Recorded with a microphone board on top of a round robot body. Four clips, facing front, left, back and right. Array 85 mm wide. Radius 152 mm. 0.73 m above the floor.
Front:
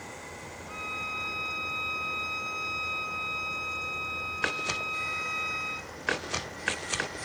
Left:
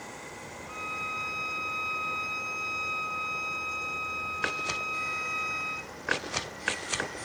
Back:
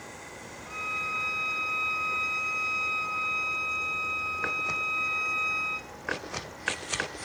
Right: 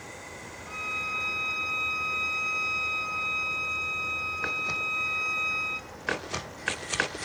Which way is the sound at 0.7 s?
125° right.